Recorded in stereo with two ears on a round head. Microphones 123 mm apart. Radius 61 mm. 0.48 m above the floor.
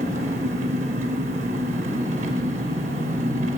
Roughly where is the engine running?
Right.